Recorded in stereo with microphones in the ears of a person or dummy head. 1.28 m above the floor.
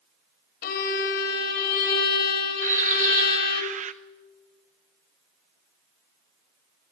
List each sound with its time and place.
0.6 s a violin: 50° left (ahead or behind), 3 m
2.6 s a bird: 35° right (ahead or behind), 0.9 m